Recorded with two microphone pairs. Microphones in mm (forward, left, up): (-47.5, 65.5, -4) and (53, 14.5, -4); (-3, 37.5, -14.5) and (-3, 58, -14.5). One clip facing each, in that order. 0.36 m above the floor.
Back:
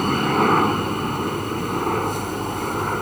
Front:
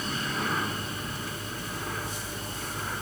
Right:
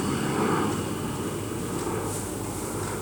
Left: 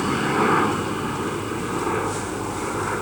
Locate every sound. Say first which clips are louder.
0.0 s a helicopter: back 13 dB, left 6 dB; 140° left; by 3.0 s 130° left